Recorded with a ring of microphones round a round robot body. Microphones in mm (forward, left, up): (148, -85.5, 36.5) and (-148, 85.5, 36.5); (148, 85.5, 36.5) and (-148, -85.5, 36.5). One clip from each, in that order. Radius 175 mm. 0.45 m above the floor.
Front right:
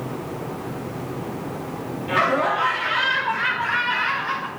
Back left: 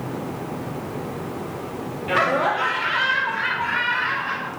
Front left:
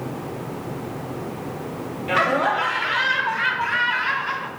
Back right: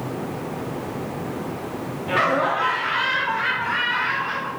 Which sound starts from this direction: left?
Laughter, at 2.1 s.